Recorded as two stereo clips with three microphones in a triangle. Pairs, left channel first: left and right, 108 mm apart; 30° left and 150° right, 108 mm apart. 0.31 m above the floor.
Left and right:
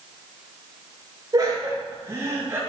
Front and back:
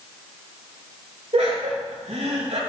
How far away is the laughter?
About 4 m.